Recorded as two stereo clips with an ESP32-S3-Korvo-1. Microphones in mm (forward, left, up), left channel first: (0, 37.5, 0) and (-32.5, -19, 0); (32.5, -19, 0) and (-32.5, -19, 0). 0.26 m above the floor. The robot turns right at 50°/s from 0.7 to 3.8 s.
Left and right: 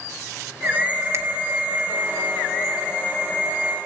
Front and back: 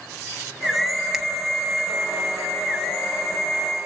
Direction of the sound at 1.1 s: 100° right.